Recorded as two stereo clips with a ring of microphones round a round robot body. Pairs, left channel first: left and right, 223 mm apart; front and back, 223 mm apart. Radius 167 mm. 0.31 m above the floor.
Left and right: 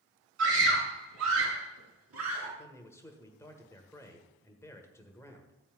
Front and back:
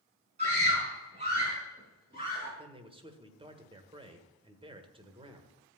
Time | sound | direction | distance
0.4 | a scream | 115° right | 4.5 m
2.6 | a man speaking | 155° left | 1.5 m